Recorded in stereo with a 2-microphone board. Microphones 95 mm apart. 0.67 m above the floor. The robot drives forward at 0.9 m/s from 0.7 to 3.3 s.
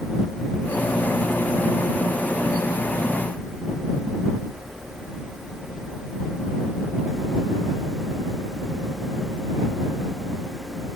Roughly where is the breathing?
No breathing in this recording.